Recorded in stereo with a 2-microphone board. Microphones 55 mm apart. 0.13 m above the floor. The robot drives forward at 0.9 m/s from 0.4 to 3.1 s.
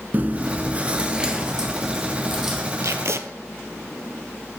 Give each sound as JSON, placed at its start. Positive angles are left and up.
{"t": 0.1, "sound": "chewing", "side_deg": -35, "distance_m": 0.6}
{"t": 2.8, "sound": "tape being pulled", "side_deg": -70, "distance_m": 0.5}